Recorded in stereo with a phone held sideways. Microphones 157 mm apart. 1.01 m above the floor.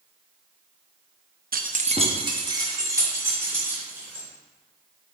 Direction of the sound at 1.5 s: 70° right (ahead or behind).